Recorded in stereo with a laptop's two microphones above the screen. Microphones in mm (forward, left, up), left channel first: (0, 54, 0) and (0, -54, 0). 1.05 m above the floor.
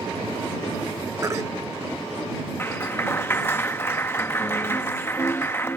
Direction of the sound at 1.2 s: 25° right (ahead or behind).